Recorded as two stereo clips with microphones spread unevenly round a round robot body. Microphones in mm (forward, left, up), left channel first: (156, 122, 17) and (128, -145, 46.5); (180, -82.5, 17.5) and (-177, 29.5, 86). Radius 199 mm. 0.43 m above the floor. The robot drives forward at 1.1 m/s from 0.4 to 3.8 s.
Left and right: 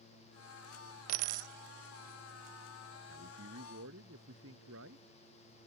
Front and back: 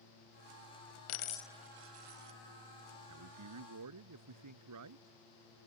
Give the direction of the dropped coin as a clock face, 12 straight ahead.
2 o'clock.